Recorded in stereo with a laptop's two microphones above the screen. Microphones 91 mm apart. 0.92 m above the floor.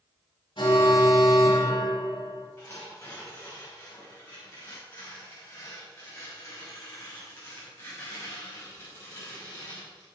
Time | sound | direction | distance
0.6 | an alarm | 60° left (ahead or behind) | 2.5 m
2.6 | tearing paper | 30° left (ahead or behind) | 5.5 m